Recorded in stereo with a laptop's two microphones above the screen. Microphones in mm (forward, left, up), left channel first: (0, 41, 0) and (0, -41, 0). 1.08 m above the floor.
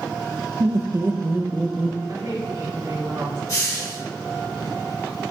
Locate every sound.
0.6 s laughter: 45° right (ahead or behind), 0.6 m; by 2.0 s 15° right (ahead or behind), 1.5 m
2.1 s a woman speaking: 80° right, 2.5 m
3.5 s a hiss: 45° left (ahead or behind), 3.5 m